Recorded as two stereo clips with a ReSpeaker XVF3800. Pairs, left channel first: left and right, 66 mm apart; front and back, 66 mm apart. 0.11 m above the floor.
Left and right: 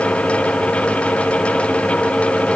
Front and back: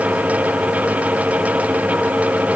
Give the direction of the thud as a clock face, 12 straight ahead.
No thud in this recording.